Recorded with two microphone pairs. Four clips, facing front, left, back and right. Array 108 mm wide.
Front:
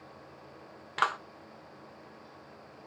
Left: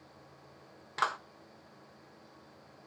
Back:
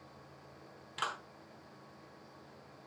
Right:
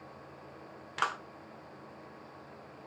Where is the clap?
5° left, 1.2 m.